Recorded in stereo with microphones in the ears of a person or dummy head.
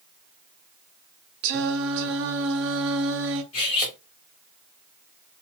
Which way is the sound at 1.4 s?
70° right (ahead or behind).